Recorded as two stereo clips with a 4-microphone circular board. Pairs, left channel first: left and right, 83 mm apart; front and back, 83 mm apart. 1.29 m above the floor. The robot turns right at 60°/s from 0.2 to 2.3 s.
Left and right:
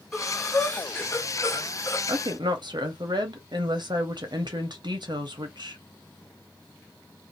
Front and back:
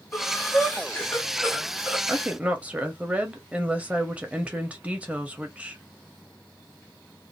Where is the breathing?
10° left, 1.0 m; by 2.0 s 115° left, 1.0 m.